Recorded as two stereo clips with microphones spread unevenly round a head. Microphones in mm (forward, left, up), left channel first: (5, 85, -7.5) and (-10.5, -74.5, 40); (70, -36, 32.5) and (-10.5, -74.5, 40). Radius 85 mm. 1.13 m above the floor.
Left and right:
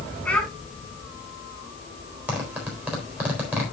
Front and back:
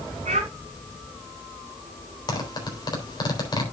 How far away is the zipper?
About 3.5 m.